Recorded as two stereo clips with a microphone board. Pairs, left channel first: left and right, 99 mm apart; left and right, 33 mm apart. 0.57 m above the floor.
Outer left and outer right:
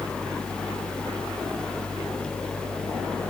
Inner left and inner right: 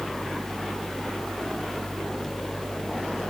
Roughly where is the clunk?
No clunk in this recording.